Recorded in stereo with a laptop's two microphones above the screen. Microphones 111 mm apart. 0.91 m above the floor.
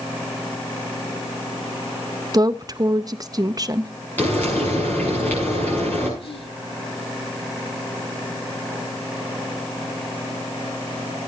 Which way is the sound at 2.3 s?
35° right (ahead or behind).